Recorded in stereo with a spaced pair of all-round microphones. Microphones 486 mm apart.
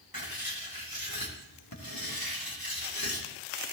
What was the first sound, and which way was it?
Writing, 45° left (ahead or behind).